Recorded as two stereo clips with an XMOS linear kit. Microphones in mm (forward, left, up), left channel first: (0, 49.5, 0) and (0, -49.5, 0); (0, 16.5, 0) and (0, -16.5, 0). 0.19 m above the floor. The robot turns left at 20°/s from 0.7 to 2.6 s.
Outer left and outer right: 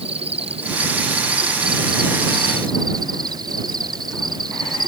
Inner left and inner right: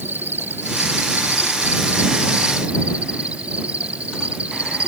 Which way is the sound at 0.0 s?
100° right.